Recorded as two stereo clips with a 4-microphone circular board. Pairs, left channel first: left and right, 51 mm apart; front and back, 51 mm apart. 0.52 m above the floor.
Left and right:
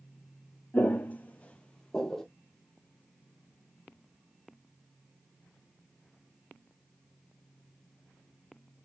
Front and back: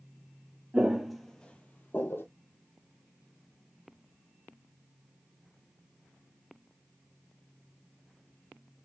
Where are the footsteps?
120° left, 0.6 m; by 2.2 s 5° left, 0.7 m.